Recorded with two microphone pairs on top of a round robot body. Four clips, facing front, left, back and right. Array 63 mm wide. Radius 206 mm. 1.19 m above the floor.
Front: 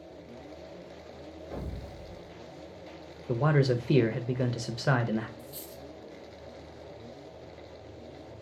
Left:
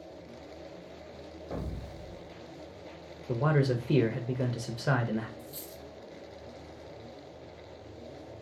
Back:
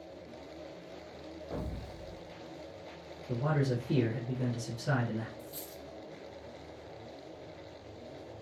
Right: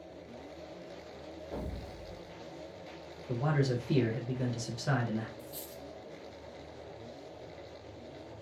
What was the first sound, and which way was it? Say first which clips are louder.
An explosion: left 3 dB, even; 110° left.